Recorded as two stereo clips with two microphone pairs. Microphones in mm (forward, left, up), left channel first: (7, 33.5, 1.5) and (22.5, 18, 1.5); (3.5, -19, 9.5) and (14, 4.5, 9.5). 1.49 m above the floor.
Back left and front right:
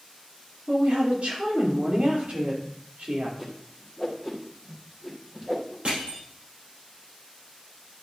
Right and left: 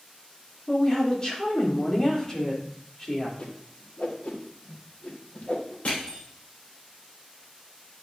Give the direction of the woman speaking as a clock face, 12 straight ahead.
2 o'clock.